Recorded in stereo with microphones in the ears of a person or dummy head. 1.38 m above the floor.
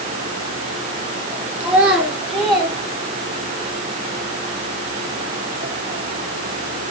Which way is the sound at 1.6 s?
10° right (ahead or behind).